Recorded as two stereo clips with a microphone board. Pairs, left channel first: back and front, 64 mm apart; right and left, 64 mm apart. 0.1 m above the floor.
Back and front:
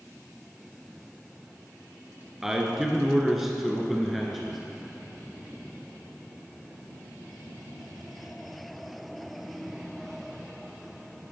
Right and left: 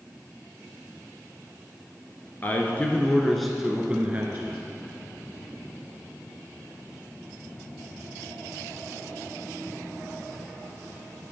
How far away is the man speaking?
About 1.4 m.